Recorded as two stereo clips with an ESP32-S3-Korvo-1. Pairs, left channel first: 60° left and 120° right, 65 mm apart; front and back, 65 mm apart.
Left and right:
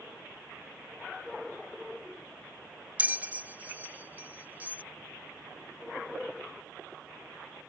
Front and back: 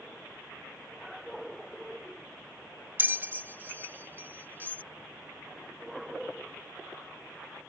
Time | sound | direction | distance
3.0 | a bell | 160° right | ?